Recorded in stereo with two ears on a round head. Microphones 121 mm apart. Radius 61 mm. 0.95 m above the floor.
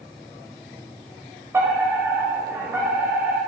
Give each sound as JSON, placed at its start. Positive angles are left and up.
{"t": 1.5, "sound": "a fire alarm", "side_deg": -15, "distance_m": 8.0}